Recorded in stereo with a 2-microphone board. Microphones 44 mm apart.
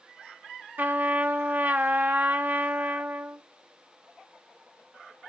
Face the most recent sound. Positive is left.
turn(degrees=-45)  # may be behind; listen again after turning